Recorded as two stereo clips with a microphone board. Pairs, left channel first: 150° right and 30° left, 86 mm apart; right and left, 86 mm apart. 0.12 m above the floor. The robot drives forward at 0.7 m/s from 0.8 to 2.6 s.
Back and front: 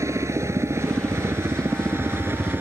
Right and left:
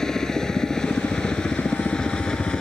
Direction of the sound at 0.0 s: 10° right.